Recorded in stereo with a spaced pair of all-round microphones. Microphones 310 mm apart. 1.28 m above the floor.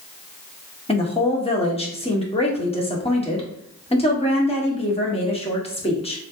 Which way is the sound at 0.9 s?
20° left (ahead or behind).